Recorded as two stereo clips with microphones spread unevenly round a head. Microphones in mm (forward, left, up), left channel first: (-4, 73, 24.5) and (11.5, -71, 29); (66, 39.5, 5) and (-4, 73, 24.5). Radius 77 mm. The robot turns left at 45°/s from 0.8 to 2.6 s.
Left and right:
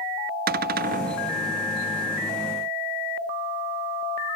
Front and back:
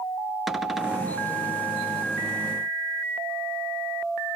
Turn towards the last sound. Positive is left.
turn(degrees=165)